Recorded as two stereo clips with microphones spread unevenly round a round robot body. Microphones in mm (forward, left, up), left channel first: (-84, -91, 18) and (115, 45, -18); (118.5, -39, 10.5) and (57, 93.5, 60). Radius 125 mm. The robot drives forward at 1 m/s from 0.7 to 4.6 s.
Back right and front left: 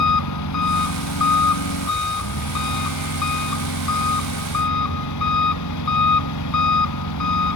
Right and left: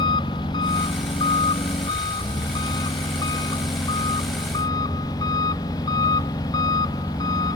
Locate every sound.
0.0 s an engine running: 135° right; by 7.6 s 140° right